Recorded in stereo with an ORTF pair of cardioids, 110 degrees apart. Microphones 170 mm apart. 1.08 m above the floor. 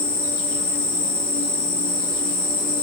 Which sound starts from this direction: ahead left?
An insect, at 0.0 s.